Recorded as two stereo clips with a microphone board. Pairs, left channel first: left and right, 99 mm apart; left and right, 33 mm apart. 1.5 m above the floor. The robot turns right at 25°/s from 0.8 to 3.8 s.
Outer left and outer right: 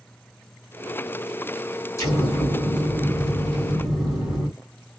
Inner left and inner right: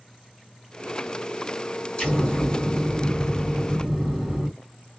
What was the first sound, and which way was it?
An explosion, 135° left.